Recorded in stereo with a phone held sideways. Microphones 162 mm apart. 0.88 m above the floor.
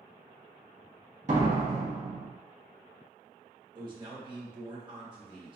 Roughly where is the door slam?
Right.